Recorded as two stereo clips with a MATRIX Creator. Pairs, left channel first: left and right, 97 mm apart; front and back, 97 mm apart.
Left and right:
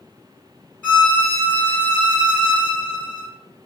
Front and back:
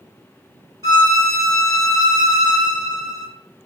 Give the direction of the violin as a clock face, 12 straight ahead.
7 o'clock.